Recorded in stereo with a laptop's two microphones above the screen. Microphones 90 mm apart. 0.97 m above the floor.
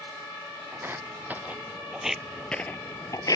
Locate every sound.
0.7 s footsteps: 25° right (ahead or behind); by 3.4 s 45° left (ahead or behind)